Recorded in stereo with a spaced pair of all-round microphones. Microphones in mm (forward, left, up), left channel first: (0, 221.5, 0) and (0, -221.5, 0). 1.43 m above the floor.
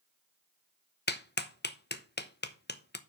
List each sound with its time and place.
1.1 s a clap: 25° left (ahead or behind), 0.7 m